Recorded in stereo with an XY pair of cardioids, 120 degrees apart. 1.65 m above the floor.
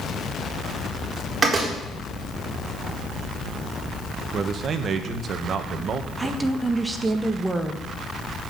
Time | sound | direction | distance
1.4 | a door slam | 25° right | 4.5 m
4.3 | a man speaking | 45° right | 1.7 m
6.2 | a woman speaking | 15° right | 1.7 m